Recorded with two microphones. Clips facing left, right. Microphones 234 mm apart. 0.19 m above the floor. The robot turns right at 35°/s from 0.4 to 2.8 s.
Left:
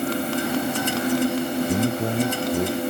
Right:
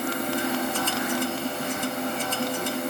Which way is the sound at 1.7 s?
110° left.